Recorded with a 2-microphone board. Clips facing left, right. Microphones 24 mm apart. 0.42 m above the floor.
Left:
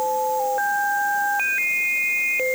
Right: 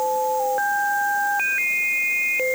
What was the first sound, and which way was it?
Only background noise.